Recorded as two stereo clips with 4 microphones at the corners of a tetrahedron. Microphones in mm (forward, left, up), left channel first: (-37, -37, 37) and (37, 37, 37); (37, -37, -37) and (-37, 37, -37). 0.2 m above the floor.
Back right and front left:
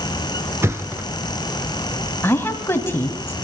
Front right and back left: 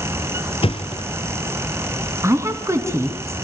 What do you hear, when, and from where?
0.6 s a thud: 20° right, 1.7 m
2.2 s a woman speaking: 175° left, 1.7 m